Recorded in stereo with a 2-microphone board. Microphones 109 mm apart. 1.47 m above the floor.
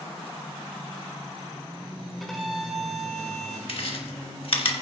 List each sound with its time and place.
2.2 s a violin: centre (ahead or behind), 1.5 m
3.7 s chewing: 60° left (ahead or behind), 1.4 m